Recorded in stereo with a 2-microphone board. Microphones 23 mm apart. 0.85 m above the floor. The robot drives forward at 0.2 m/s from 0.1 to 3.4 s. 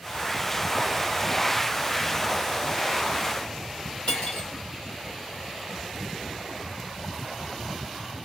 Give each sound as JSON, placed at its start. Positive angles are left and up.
{"t": 4.1, "sound": "cutlery clinking", "side_deg": 45, "distance_m": 1.7}